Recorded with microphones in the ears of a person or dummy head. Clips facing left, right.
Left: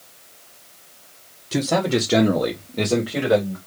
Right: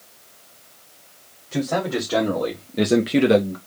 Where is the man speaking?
55° left (ahead or behind), 1.3 m; by 3.6 s 55° right (ahead or behind), 1.0 m.